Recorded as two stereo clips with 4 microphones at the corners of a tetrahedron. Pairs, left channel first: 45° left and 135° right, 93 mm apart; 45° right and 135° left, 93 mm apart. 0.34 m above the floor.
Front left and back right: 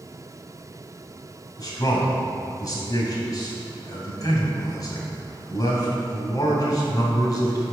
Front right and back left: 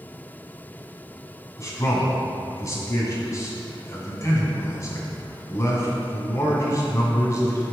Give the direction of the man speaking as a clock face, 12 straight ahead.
12 o'clock.